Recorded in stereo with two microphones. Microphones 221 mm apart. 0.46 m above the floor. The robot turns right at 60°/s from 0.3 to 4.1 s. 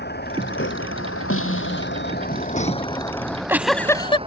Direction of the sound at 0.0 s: 50° left (ahead or behind).